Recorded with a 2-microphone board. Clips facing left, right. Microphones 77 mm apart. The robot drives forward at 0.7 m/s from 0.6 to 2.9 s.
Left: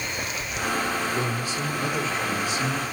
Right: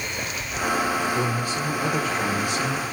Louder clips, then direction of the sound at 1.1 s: Right 2 dB; 40° right (ahead or behind).